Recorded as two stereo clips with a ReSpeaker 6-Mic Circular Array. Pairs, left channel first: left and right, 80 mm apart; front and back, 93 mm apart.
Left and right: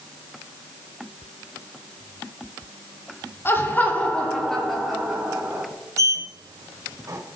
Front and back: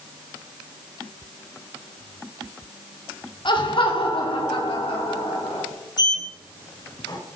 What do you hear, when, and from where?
3.5 s laughter: 30° left, 2.5 m; by 5.7 s 15° right, 3.5 m
6.0 s a sliding door: 40° right, 2.5 m